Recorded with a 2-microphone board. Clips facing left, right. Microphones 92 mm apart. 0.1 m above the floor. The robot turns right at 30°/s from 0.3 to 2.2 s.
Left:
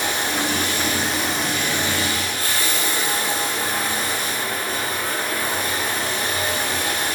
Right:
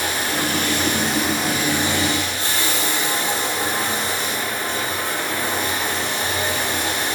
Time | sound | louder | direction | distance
0.0 | running water | even | 155° left | 2.5 m